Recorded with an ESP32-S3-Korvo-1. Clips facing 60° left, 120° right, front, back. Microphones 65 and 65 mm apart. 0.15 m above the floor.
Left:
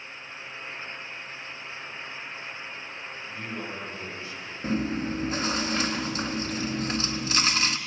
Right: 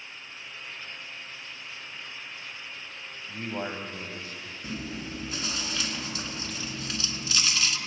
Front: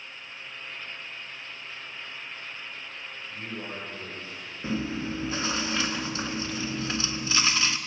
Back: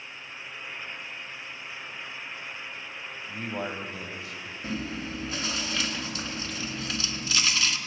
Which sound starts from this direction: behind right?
A man speaking, at 3.3 s.